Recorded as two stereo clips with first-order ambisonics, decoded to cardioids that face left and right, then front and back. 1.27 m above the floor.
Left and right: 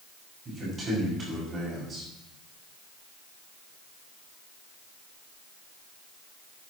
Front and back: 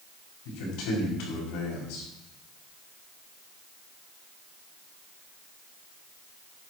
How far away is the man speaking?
About 6.5 m.